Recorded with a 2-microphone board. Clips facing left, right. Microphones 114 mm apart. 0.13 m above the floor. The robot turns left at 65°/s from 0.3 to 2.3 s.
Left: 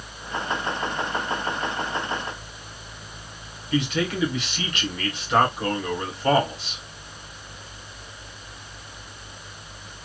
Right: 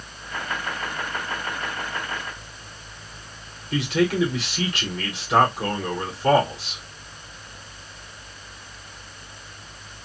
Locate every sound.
3.7 s a man speaking: 30° right (ahead or behind), 3 m